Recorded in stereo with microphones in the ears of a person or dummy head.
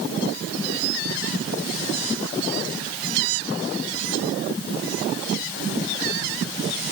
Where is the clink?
I don't hear a clink.